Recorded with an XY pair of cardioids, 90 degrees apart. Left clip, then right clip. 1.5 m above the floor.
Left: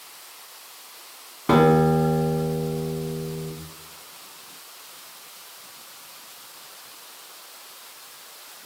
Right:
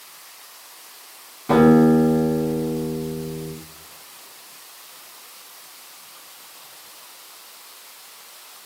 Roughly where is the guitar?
Left.